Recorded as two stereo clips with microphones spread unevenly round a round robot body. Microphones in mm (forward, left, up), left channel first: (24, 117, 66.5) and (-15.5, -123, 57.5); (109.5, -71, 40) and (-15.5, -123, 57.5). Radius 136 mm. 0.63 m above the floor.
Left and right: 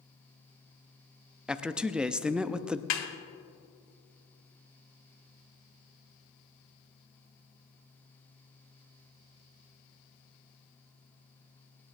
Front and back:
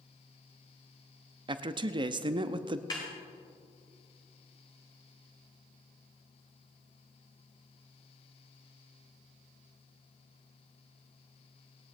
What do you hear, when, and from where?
1.5 s a man speaking: straight behind, 0.6 m
2.9 s a snare drum: 95° left, 1.5 m